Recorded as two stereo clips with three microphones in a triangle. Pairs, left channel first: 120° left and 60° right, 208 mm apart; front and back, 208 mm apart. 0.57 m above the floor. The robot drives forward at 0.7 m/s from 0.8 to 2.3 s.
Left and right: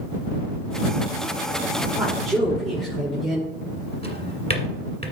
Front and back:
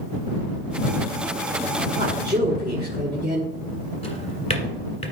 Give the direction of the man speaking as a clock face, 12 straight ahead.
5 o'clock.